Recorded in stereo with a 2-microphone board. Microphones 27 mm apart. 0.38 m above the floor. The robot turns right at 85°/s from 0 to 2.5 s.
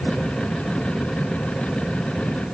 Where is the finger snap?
No finger snap in this recording.